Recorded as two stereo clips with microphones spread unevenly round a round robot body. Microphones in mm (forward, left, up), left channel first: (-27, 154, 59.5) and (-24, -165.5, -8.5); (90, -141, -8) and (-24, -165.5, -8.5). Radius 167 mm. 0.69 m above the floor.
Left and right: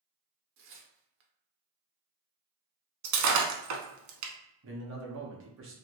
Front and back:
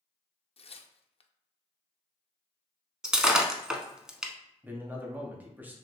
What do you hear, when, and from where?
0.6 s tearing paper: 30° right, 0.5 m
3.0 s breaking glass: 85° right, 0.8 m
4.6 s a man speaking: 95° right, 1.0 m